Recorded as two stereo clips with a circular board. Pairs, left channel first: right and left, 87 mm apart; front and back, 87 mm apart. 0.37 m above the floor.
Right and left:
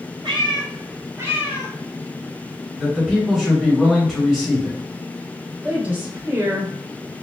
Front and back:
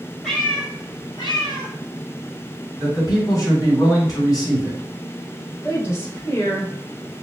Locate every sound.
0.2 s a cat meowing: 80° left, 1.2 m; by 1.7 s 5° left, 1.2 m
2.8 s a man speaking: 5° left, 1.8 m
5.6 s a woman speaking: 35° left, 1.0 m